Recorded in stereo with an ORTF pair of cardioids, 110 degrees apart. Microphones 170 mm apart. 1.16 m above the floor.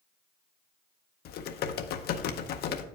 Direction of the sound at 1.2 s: 65° left.